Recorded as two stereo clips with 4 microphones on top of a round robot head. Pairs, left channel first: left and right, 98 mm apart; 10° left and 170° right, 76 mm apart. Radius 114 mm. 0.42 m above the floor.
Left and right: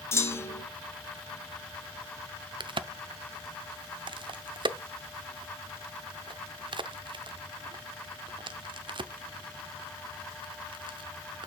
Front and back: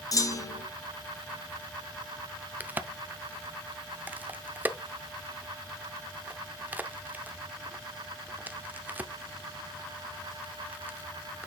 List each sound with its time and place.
0.1 s a clunk: 35° left, 1.9 m
2.6 s a crack: 110° right, 0.7 m